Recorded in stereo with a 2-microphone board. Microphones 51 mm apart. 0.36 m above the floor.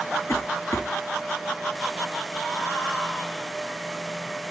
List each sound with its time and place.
0.3 s a cough: 70° left (ahead or behind), 3 m